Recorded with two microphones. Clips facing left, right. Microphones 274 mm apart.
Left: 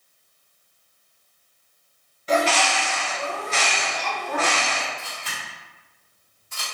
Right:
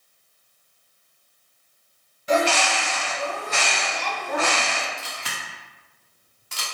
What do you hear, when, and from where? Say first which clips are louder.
2.3 s a bird: right 1 dB; 15° right (ahead or behind), 1.7 m
5.0 s a camera shutter: right 1 dB; 90° right, 0.9 m